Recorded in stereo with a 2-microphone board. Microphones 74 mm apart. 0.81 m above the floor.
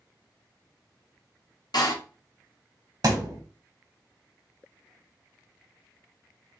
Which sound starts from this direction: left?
A door slam, at 1.7 s.